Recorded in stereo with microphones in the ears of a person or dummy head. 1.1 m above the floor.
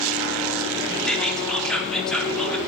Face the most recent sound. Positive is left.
turn(degrees=5)  # may be behind; listen again after turning